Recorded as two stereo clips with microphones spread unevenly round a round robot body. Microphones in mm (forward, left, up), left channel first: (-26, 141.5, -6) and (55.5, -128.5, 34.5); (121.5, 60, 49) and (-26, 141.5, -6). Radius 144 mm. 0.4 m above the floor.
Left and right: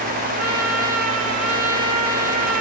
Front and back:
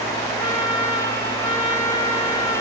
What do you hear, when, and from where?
0.4 s a trumpet: 115° right, 1.8 m